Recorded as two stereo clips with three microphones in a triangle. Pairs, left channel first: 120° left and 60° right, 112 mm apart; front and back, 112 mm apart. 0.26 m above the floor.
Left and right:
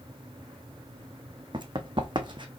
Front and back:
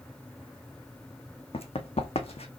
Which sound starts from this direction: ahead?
Running footsteps, at 1.5 s.